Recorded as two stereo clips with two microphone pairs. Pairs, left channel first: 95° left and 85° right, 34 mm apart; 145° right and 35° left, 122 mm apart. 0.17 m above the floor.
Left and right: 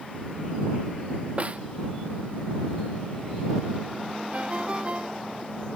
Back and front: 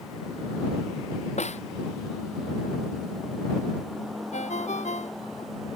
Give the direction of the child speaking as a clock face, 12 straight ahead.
No child speaking in this recording.